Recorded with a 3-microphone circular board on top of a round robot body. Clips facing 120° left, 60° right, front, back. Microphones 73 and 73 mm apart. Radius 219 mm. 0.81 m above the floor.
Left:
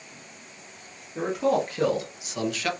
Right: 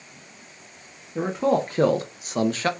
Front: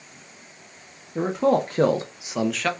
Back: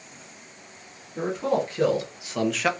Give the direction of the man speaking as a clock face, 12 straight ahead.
12 o'clock.